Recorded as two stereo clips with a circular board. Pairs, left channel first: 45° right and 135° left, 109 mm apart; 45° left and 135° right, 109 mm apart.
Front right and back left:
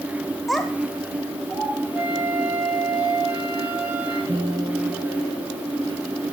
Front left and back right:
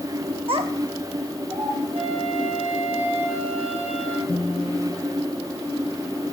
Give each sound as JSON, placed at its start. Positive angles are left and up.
{"t": 0.5, "sound": "a child speaking", "azimuth_deg": -135, "distance_m": 0.5}
{"t": 1.9, "sound": "a flute", "azimuth_deg": -150, "distance_m": 4.0}
{"t": 4.3, "sound": "a guitar", "azimuth_deg": 80, "distance_m": 2.0}